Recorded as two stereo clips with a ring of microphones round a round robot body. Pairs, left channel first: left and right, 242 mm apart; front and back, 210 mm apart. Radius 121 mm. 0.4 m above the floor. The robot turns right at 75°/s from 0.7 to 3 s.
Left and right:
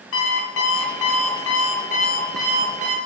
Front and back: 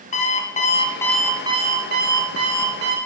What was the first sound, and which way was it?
An alarm clock, 55° left.